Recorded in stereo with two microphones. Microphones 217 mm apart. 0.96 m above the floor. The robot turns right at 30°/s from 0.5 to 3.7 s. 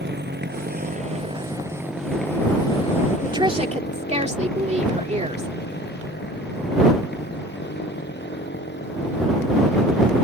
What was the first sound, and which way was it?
A motorcycle, 50° right (ahead or behind).